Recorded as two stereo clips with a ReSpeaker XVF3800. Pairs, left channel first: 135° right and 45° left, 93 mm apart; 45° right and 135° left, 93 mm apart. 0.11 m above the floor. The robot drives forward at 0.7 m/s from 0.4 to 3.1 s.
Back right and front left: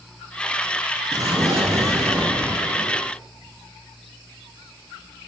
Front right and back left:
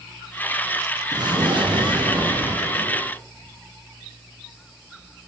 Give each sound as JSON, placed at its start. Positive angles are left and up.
{"t": 1.1, "sound": "an explosion", "azimuth_deg": 95, "distance_m": 4.5}